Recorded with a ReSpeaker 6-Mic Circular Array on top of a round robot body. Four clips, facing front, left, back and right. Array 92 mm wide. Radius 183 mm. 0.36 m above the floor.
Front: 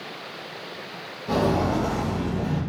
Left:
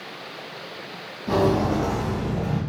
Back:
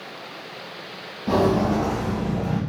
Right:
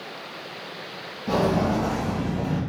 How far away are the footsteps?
About 1.4 m.